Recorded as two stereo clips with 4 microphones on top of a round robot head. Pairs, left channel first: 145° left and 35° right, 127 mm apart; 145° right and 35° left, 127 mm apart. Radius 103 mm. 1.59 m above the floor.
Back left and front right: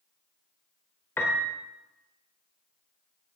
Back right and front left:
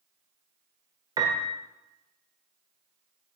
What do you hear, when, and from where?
1.2 s a piano: 80° left, 1.3 m